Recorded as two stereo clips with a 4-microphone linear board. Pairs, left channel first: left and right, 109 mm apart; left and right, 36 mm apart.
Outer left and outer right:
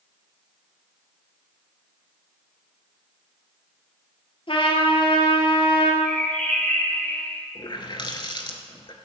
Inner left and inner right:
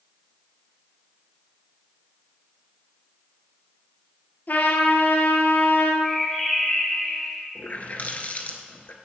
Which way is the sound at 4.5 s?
60° left (ahead or behind).